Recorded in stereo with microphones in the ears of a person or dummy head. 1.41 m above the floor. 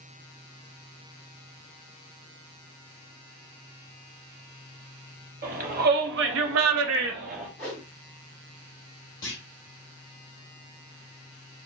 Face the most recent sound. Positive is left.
turn(degrees=15)  # may be behind; listen again after turning